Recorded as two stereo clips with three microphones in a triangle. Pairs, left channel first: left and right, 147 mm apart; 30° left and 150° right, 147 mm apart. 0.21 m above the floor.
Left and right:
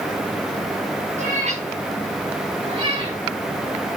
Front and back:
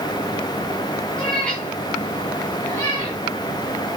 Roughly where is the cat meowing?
Ahead right.